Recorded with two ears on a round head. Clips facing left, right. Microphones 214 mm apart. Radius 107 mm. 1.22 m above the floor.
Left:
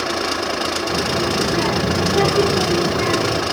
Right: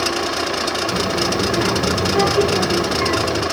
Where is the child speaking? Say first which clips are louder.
Even; 15° right (ahead or behind), 3 m; by 3.4 s 10° left (ahead or behind), 3 m.